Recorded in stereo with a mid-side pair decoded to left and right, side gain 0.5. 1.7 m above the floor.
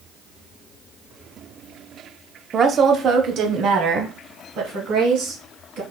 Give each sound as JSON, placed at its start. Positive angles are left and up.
{"t": 2.5, "sound": "a woman speaking", "azimuth_deg": -40, "distance_m": 0.8}